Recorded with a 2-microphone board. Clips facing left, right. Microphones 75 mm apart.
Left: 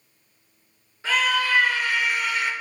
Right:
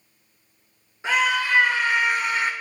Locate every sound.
1.0 s a scream: 20° right (ahead or behind), 2.5 m; by 2.5 s 40° right (ahead or behind), 2 m